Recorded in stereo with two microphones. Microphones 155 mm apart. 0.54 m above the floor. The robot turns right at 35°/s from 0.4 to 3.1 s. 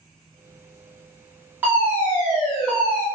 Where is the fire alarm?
15° right (ahead or behind), 1.8 m; by 3.0 s 10° left (ahead or behind), 1.8 m.